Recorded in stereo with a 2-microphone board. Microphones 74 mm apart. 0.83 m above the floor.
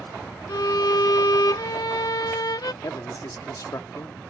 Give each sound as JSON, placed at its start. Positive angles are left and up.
{"t": 0.5, "sound": "a violin", "side_deg": 65}
{"t": 2.8, "sound": "a man speaking", "side_deg": 55}